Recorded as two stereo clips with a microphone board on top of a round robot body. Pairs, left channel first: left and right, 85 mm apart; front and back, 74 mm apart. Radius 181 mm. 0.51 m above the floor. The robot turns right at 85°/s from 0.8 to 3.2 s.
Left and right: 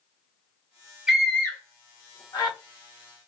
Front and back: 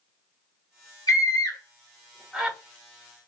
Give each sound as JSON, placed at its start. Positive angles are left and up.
{"t": 1.1, "sound": "a scream", "azimuth_deg": -10, "distance_m": 2.0}